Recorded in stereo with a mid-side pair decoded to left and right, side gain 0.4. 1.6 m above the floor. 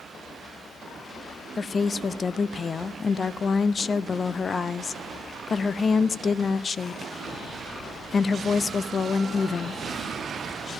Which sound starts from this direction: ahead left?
A woman speaking, at 1.6 s.